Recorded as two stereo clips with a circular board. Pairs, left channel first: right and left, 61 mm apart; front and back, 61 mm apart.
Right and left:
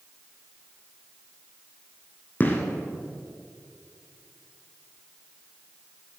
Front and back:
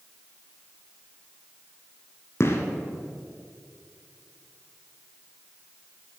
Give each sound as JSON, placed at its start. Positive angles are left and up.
{"t": 2.4, "sound": "a gunshot", "azimuth_deg": -35, "distance_m": 1.6}